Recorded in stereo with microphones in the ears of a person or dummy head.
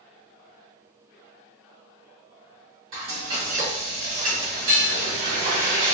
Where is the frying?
45° right (ahead or behind), 1.2 m.